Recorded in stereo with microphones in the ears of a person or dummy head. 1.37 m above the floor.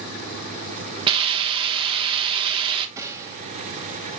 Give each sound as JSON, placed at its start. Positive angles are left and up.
{"t": 1.1, "sound": "a hiss", "side_deg": -30, "distance_m": 1.3}
{"t": 3.0, "sound": "a gunshot", "side_deg": -15, "distance_m": 1.8}